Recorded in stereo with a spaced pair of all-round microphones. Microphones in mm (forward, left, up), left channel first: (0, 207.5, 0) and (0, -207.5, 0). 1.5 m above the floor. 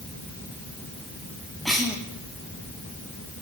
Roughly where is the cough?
Centre.